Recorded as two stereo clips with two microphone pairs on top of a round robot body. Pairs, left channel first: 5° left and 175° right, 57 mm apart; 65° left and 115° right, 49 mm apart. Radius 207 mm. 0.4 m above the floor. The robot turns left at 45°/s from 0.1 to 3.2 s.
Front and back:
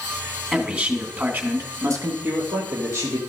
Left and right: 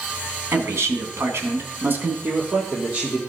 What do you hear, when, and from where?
0.5 s a man speaking: 90° right, 2.5 m; by 2.1 s 160° right, 2.5 m
2.2 s a man speaking: 130° right, 2 m; by 3.2 s 175° right, 2 m